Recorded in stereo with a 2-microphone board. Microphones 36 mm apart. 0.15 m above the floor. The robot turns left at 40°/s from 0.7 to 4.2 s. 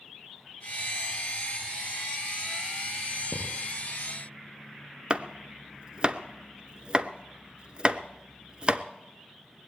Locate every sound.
3.3 s a thud: 10° left (ahead or behind), 6.5 m; by 3.5 s 5° left (ahead or behind), 6.5 m
5.1 s chopping: 30° right (ahead or behind), 0.6 m